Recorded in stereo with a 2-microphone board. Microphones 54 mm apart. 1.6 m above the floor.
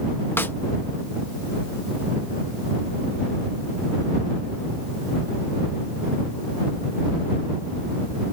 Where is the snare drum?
45° left (ahead or behind).